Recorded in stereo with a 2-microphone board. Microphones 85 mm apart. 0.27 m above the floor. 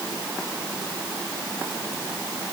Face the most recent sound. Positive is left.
No sound to turn to.